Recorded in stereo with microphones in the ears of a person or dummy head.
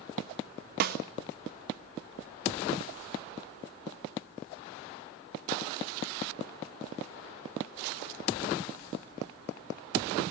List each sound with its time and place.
0.8 s a snare drum: 60° right (ahead or behind), 1.1 m